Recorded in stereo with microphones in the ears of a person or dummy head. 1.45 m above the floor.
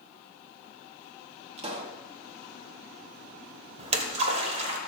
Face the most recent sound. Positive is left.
turn(degrees=-30)  # may be behind; listen again after turning